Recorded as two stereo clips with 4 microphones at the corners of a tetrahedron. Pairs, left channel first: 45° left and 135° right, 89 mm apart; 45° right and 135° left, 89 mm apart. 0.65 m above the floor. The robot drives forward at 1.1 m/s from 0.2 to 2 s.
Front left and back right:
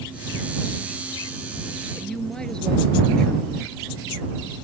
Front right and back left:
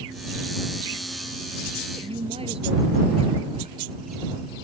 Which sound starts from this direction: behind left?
A woman speaking, at 1.9 s.